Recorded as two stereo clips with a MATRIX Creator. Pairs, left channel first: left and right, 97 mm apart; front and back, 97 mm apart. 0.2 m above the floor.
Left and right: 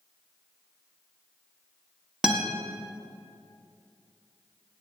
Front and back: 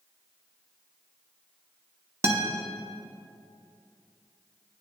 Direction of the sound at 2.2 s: 160° right.